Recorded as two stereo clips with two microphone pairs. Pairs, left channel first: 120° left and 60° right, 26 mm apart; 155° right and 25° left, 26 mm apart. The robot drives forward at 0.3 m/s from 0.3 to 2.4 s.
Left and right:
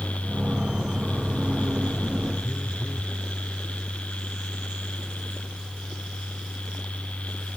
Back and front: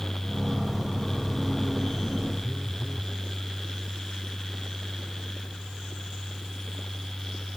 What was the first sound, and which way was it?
A phone buzzing, 100° left.